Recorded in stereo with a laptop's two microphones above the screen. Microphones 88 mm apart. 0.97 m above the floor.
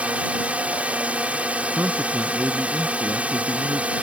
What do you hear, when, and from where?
0.0 s a drone: 15° right (ahead or behind)
1.7 s a man speaking: 20° right (ahead or behind)